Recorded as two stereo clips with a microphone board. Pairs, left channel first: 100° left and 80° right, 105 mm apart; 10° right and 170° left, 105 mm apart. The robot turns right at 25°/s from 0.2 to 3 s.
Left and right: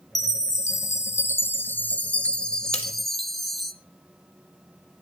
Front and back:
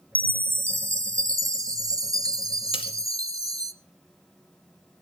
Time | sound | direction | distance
0.1 | a chime | 120° left | 0.9 m
2.7 | cutlery clinking | 25° left | 2.5 m